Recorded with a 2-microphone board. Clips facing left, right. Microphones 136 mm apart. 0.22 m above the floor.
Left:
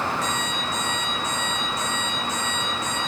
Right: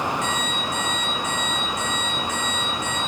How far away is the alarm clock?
About 9.5 m.